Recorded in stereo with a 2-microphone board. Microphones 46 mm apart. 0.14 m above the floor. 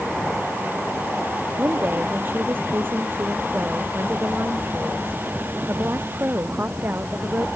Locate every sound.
1.6 s a woman speaking: 50° right (ahead or behind)